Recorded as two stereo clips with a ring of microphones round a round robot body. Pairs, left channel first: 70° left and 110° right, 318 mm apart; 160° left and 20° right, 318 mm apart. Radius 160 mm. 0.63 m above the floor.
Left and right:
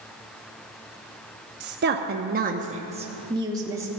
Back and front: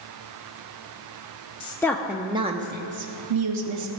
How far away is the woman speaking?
About 0.8 m.